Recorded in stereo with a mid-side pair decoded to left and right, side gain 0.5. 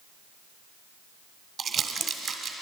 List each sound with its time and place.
1.6 s crumpling: 50° right, 1.8 m